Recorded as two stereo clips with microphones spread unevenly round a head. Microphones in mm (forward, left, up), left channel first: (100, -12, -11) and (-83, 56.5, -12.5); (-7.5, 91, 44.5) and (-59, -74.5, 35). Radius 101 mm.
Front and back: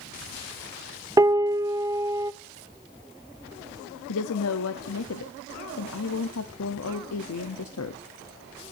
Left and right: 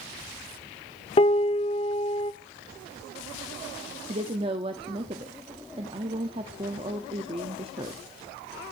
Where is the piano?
95° left, 0.6 m.